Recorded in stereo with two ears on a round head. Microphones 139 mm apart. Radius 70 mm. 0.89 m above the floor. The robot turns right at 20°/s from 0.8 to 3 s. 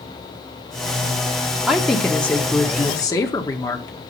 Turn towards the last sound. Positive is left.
turn(degrees=25)  # may be behind; listen again after turning